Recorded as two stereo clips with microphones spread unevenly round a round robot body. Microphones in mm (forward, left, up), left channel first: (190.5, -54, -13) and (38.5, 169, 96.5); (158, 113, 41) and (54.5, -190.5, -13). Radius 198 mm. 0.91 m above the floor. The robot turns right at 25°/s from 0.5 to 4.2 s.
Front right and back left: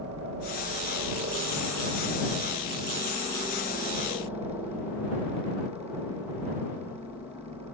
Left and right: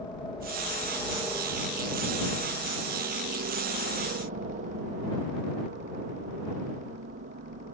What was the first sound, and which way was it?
A helicopter, 150° left.